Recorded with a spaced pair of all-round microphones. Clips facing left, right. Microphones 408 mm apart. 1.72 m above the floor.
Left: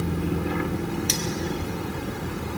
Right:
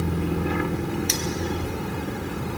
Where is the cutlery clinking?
55° left (ahead or behind), 1.7 m.